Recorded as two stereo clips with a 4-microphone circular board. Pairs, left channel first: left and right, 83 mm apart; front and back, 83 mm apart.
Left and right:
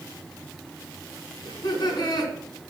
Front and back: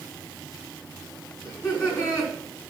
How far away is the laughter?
About 3.5 m.